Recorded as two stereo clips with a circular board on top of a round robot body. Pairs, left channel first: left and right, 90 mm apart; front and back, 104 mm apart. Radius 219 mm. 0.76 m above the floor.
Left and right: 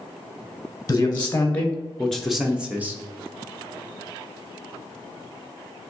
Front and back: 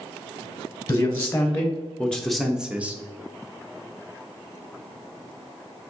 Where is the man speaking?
40° left, 1.2 m; by 3.0 s 130° right, 1.0 m.